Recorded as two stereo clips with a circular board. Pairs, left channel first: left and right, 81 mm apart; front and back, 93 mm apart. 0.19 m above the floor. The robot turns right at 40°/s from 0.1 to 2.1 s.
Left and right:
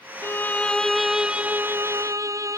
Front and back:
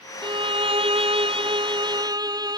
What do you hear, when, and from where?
0.2 s a violin: 150° left; by 2.6 s 135° right